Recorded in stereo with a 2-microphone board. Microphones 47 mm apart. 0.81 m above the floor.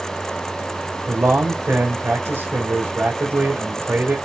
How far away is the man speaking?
About 3 m.